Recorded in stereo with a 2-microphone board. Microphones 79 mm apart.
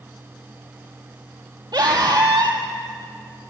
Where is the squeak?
No squeak in this recording.